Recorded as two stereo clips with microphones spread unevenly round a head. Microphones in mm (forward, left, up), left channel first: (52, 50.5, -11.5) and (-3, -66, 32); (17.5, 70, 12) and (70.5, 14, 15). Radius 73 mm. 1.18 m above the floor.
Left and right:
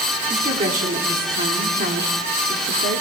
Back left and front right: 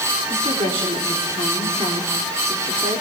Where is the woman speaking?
75° right, 3.5 m; by 3.0 s 105° right, 3 m.